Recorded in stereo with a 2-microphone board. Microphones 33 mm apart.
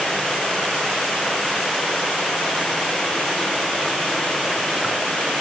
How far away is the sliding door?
I don't hear a sliding door.